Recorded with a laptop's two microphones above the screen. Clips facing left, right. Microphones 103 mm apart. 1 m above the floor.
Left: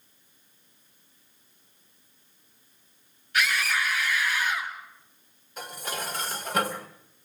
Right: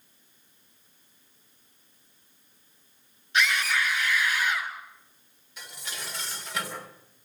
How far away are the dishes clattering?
About 2.5 m.